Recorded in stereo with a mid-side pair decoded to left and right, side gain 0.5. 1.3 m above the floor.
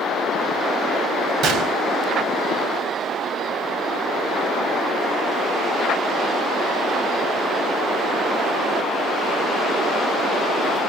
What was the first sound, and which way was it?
A gunshot, 65° right.